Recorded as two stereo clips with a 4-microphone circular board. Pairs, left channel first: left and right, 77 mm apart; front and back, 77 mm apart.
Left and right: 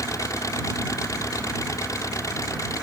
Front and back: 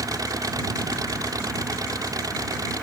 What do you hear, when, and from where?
0.0 s an engine running: 135° left